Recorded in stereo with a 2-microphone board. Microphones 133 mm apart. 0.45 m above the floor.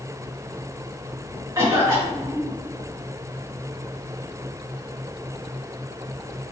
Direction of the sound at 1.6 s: 30° right (ahead or behind).